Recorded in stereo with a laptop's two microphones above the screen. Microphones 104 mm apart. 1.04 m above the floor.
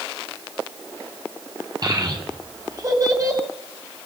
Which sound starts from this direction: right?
A child speaking, at 1.8 s.